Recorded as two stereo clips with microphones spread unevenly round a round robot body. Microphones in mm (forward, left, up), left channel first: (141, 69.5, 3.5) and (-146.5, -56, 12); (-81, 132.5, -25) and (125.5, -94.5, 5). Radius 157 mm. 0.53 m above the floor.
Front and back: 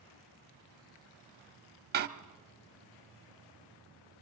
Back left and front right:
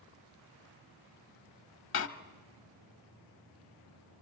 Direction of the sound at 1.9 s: 155° left.